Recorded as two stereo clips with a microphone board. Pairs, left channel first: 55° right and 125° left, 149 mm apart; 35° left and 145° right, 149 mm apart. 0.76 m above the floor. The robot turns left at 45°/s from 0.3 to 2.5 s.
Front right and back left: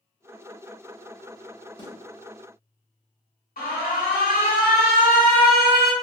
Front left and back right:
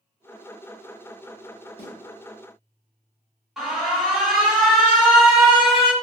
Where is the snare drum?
Straight ahead, 1.6 m; by 1.9 s 5° right, 1.6 m.